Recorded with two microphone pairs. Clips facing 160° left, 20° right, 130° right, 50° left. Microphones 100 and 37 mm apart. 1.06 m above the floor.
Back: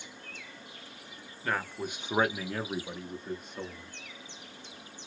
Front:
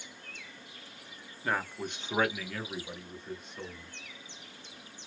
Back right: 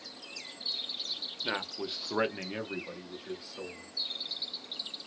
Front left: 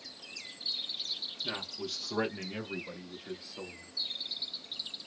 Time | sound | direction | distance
1.4 | a man speaking | 95° right | 1.0 m